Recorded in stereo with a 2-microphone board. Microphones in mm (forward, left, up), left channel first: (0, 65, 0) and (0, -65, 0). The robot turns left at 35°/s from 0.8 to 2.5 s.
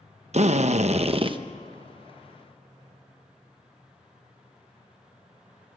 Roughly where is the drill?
Right.